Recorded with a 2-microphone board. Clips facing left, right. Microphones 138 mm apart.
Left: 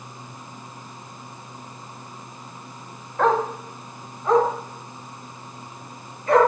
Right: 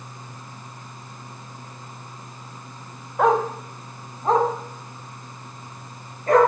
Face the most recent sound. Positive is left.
turn(degrees=-45)  # may be behind; listen again after turning